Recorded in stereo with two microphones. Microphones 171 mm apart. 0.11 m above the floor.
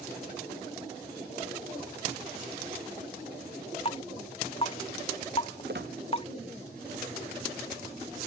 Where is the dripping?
35° left (ahead or behind).